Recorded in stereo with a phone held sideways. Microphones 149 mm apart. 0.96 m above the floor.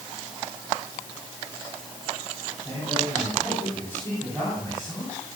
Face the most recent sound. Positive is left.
turn(degrees=15)  # may be behind; listen again after turning